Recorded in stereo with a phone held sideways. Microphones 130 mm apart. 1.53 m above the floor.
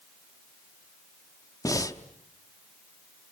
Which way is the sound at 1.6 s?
25° left (ahead or behind).